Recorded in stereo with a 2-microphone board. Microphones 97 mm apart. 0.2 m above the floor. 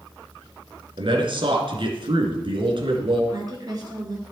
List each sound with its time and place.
1.0 s a man speaking: 60° right (ahead or behind), 2 m
3.3 s a woman speaking: 45° right (ahead or behind), 3 m